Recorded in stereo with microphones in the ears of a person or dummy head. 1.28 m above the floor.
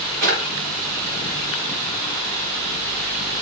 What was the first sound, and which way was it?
A drawer, 40° right (ahead or behind).